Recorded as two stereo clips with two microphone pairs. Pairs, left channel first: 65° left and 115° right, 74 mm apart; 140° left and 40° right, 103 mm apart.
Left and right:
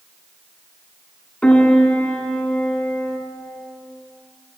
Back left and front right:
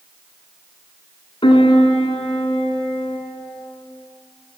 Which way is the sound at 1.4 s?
135° left.